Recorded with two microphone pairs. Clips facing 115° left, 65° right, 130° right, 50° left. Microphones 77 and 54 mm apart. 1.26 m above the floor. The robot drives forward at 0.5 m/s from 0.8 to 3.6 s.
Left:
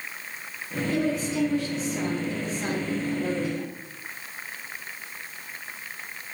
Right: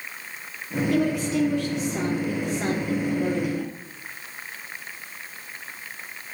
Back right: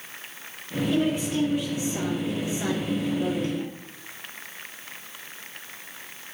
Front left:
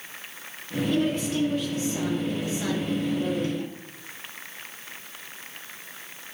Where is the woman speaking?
40° right, 3 m; by 3.8 s 65° right, 2 m.